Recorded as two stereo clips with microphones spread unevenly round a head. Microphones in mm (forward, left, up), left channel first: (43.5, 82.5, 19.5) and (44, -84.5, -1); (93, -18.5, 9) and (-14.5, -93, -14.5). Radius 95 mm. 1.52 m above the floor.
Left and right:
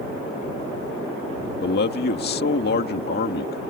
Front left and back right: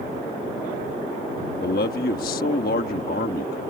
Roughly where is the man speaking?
Ahead left.